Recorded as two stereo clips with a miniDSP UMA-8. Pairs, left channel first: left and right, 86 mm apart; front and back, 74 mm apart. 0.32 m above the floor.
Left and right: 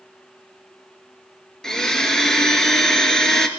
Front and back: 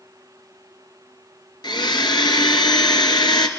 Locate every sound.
1.6 s a blender: 5° left, 1.9 m